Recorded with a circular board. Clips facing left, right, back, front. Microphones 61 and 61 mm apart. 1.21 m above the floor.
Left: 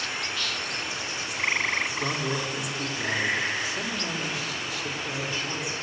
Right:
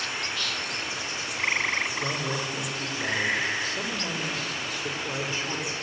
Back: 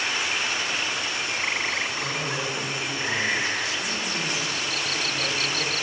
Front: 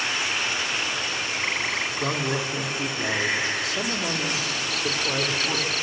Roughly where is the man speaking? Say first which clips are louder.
Left 1 dB, front 2 dB; ahead left.